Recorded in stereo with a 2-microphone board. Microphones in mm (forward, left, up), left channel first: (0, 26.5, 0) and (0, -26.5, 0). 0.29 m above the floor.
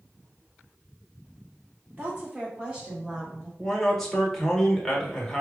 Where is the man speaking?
5° left (ahead or behind), 0.9 m.